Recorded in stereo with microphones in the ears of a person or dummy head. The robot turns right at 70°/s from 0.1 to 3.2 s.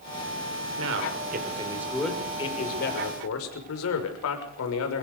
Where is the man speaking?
80° right, 6 m; by 5.0 s 90° left, 6 m.